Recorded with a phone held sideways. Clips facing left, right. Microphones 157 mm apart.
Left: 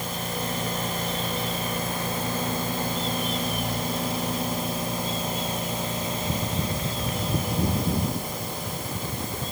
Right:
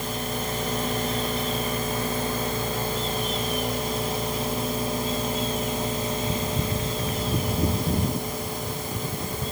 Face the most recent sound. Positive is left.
No sound to turn to.